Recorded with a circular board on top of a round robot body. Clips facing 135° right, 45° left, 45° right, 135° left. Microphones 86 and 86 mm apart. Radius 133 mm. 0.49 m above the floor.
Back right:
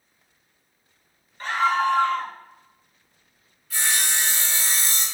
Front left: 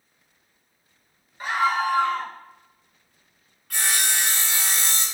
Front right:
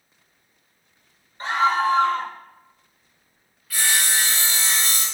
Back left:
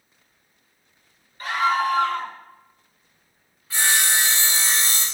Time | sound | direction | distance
1.4 | a scream | 25° right | 0.7 m
3.7 | sawing | 70° left | 0.9 m